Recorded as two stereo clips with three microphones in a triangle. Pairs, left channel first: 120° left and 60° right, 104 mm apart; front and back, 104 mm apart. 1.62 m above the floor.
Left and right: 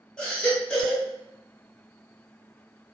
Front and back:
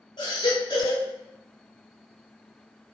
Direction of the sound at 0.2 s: 40° left.